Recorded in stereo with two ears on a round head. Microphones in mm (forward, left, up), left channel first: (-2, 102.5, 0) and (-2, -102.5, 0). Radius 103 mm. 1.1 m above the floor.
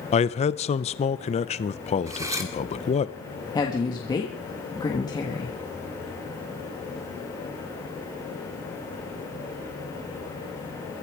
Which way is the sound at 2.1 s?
15° right (ahead or behind).